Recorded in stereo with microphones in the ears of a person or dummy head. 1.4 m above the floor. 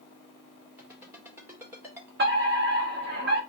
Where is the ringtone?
10° right (ahead or behind), 1.8 m.